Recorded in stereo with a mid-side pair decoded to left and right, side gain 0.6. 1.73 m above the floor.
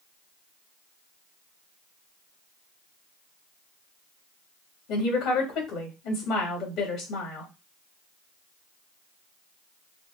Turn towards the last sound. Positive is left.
turn(degrees=55)